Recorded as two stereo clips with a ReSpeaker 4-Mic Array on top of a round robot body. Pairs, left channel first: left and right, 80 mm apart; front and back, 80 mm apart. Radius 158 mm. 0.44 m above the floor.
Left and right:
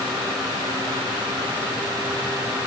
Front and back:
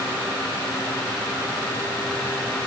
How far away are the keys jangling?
No keys jangling in this recording.